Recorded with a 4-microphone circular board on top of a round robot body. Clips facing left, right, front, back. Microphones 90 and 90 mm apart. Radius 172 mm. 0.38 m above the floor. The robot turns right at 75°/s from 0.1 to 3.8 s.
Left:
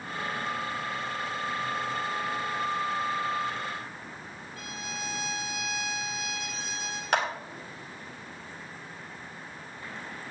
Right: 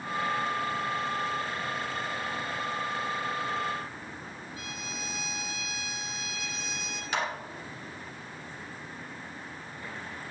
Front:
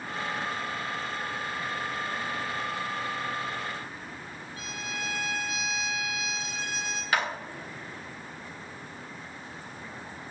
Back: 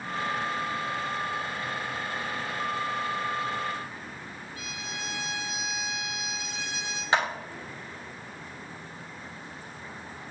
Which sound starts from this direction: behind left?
A clap, at 7.1 s.